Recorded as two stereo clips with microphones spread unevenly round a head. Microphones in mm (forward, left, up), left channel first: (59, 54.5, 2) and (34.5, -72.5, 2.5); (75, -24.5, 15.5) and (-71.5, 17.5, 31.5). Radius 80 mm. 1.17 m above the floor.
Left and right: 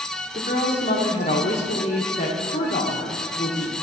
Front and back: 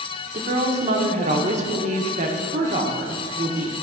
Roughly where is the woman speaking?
Behind left.